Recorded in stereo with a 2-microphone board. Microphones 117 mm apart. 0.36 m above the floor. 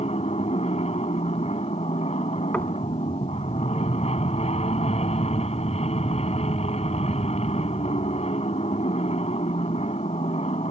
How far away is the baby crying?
No baby crying in this recording.